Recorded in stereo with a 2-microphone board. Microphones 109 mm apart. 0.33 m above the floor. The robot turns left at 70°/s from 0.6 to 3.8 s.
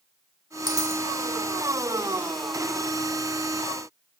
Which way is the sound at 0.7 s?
40° right (ahead or behind).